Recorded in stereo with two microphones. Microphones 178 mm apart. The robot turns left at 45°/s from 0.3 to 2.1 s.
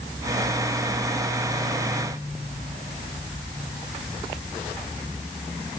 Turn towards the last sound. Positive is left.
No sound to turn to.